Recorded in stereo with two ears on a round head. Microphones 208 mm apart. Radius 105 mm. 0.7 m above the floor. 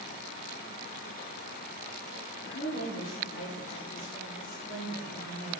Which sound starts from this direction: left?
A woman speaking, at 2.5 s.